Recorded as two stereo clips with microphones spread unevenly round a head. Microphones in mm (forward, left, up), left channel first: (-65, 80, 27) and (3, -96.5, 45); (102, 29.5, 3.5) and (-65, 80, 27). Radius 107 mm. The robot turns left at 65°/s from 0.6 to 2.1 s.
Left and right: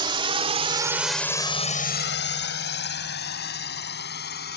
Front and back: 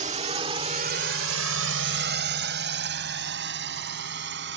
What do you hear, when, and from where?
0.0 s a drone: 135° right; by 4.6 s 145° left